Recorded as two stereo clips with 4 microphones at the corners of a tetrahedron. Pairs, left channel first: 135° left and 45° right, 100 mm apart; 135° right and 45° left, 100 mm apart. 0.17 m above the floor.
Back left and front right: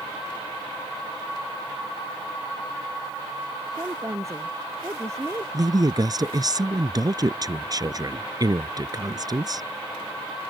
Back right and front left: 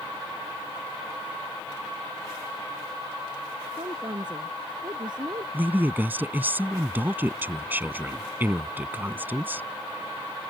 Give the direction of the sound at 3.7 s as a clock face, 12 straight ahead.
12 o'clock.